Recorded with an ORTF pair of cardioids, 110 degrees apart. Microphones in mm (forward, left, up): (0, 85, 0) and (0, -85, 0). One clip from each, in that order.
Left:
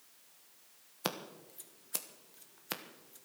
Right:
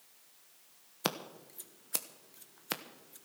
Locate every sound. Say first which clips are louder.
1.0 s scissors: right 3 dB; 15° right, 1.1 m